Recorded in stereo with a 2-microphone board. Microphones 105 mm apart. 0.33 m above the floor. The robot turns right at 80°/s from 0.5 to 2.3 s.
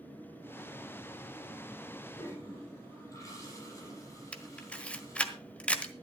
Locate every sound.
2.2 s a toilet flushing: 40° left (ahead or behind), 6 m; by 5.3 s 30° left (ahead or behind), 6 m
4.3 s a camera shutter: 15° left (ahead or behind), 1.2 m